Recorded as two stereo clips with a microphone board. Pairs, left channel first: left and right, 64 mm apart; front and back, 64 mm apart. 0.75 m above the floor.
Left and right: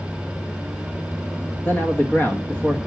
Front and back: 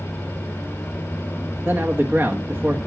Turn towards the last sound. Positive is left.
turn(degrees=135)